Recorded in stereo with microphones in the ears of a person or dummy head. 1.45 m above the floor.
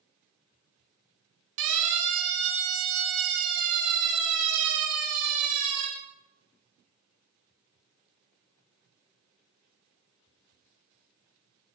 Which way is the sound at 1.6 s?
75° right (ahead or behind).